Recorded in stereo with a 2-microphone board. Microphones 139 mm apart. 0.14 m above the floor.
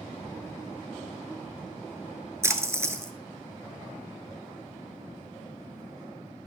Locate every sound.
2.4 s a splash: 20° right (ahead or behind), 0.9 m